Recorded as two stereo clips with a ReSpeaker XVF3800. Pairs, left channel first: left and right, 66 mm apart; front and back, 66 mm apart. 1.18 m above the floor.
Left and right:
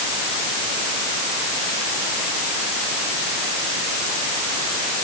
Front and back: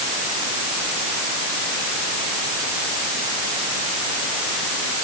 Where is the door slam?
I don't hear a door slam.